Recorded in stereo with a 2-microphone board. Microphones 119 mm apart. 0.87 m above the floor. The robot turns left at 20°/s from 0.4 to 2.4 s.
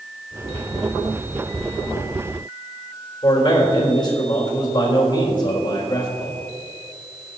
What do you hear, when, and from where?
3.2 s a man speaking: 40° left (ahead or behind), 4 m